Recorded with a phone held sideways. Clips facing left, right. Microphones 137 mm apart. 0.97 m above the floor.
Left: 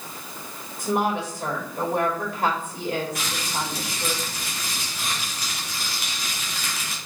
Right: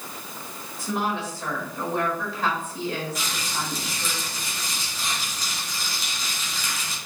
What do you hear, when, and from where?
0.8 s a woman speaking: 55° left (ahead or behind), 4 m
3.1 s crumpling: 60° left (ahead or behind), 3.5 m